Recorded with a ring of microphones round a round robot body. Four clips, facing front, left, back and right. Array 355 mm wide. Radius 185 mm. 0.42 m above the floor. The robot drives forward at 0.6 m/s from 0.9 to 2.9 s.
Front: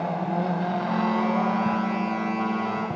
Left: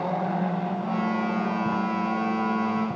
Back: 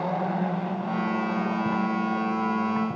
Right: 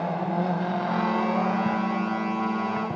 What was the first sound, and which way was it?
Only background noise.